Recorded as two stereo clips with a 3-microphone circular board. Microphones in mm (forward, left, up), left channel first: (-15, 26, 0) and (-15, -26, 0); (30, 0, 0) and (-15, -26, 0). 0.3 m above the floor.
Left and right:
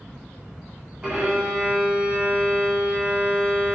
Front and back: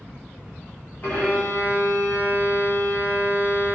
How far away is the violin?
About 3.5 m.